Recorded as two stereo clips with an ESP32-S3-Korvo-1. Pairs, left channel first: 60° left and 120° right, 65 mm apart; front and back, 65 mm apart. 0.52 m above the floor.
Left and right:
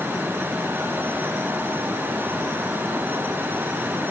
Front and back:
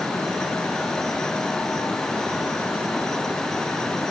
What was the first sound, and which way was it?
Only background noise.